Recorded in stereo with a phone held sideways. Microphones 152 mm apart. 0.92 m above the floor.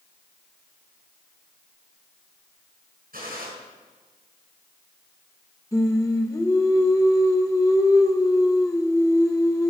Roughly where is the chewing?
No chewing in this recording.